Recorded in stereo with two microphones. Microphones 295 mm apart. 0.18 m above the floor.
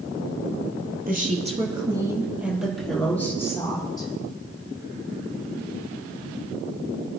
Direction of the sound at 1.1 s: 30° right (ahead or behind).